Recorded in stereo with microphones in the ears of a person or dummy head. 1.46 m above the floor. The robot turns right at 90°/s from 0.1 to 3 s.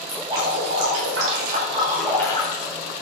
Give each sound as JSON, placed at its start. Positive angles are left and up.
{"t": 0.1, "sound": "dripping", "azimuth_deg": -175, "distance_m": 5.0}